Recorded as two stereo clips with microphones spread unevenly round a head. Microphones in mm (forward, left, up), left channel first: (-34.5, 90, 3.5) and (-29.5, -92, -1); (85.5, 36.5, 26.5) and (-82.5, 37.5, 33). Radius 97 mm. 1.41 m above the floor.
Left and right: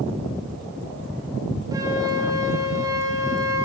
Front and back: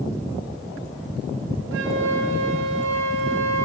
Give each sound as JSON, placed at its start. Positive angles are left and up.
{"t": 1.7, "sound": "a flute", "azimuth_deg": -160, "distance_m": 4.5}